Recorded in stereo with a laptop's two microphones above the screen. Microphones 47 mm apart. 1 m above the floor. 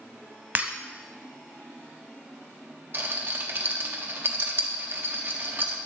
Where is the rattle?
50° right (ahead or behind), 1.3 m.